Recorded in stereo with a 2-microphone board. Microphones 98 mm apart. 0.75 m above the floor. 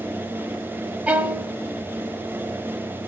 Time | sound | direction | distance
1.1 | a violin | 20° right (ahead or behind) | 0.6 m